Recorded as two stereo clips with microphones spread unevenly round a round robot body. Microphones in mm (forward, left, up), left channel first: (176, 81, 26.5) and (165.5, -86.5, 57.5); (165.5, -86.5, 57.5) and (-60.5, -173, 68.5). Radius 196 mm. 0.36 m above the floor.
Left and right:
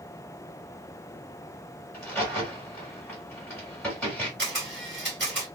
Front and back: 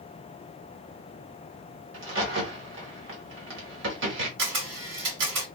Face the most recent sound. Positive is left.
turn(degrees=-160)